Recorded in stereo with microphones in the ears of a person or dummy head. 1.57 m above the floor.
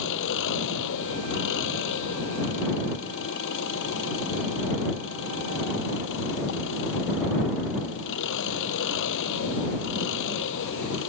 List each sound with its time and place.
0.0 s an engine running: 65° left (ahead or behind)